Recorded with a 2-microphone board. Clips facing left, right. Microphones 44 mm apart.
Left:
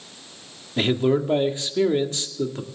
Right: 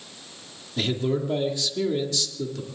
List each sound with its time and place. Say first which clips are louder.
0.8 s a man speaking: left 5 dB; 35° left (ahead or behind), 1.9 m